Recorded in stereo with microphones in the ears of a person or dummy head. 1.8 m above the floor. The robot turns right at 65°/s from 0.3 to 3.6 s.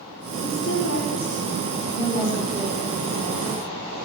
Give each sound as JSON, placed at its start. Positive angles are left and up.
{"t": 0.4, "sound": "a woman speaking", "azimuth_deg": 50, "distance_m": 6.5}